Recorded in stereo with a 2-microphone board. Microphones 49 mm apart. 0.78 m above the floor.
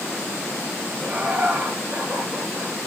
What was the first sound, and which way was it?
Laughter, 25° right (ahead or behind).